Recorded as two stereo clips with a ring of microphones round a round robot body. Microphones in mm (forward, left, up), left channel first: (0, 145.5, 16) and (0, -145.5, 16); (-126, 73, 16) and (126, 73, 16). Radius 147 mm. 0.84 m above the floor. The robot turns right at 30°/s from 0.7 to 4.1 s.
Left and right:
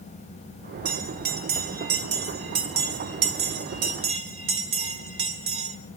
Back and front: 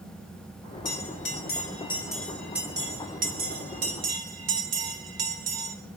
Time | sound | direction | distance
0.8 | a bell | 135° right | 1.3 m